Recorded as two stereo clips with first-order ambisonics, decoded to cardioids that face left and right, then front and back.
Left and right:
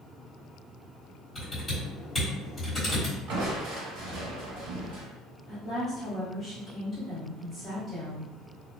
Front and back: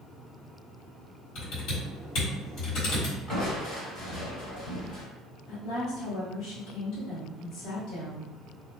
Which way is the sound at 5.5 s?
15° left.